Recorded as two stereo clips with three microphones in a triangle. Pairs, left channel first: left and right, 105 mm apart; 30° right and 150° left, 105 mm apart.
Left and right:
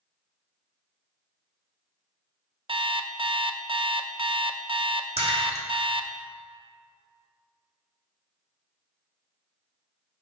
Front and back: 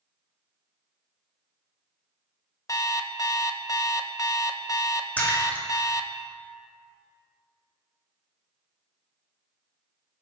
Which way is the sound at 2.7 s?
80° right.